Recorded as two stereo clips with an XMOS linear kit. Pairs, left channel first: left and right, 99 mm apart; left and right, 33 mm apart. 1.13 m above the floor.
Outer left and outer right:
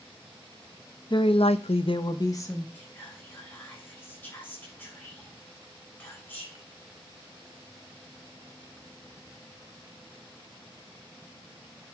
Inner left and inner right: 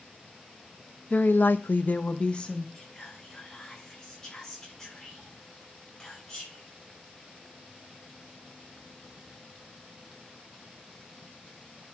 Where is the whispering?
20° left (ahead or behind), 6.5 m.